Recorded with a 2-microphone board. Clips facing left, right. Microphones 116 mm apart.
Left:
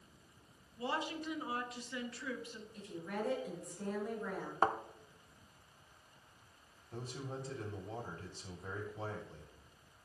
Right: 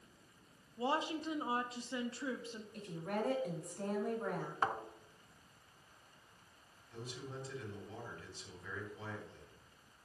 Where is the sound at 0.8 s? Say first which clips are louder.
Right 3 dB; 30° right (ahead or behind), 1.2 m.